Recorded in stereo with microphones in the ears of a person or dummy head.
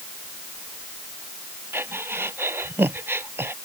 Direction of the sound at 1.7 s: 15° right (ahead or behind).